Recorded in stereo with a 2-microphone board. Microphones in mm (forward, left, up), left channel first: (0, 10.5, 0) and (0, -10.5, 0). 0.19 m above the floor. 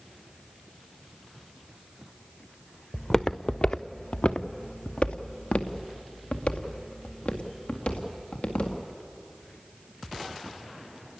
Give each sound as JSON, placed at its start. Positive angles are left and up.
{"t": 2.9, "sound": "footsteps", "side_deg": 15, "distance_m": 0.8}